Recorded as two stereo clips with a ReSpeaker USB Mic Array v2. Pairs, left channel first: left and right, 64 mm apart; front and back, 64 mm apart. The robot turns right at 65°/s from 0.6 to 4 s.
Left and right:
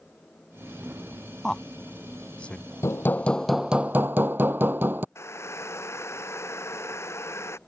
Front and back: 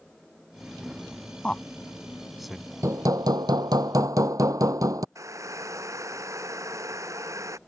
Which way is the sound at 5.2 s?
140° left.